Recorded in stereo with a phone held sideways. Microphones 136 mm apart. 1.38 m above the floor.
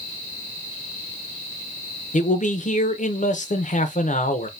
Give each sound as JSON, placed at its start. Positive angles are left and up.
{"t": 2.1, "sound": "a man speaking", "side_deg": 65, "distance_m": 0.7}